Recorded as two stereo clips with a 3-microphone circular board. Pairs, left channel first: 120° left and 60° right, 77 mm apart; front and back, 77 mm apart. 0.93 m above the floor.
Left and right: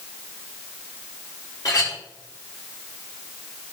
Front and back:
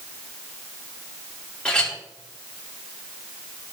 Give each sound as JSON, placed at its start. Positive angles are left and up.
{"t": 1.6, "sound": "a clink", "azimuth_deg": 80, "distance_m": 1.5}